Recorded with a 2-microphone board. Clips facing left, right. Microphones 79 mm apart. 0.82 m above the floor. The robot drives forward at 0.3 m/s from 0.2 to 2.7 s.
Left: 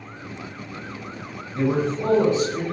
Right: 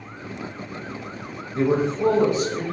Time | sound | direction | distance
1.6 | a man speaking | 25° right (ahead or behind) | 0.8 m